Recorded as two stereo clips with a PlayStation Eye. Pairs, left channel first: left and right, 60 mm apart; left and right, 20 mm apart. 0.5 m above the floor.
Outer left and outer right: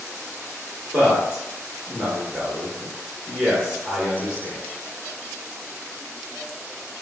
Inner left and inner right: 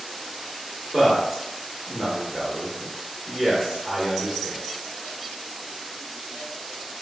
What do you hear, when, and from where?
0.9 s a man speaking: 20° right (ahead or behind), 0.8 m